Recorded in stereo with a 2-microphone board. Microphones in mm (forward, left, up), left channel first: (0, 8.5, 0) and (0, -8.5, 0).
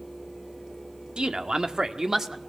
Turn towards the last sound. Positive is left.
turn(degrees=-25)  # may be behind; listen again after turning